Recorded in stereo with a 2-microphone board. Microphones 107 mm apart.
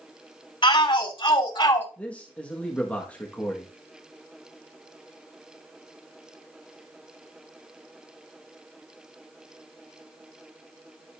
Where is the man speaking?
15° left (ahead or behind), 1.5 m.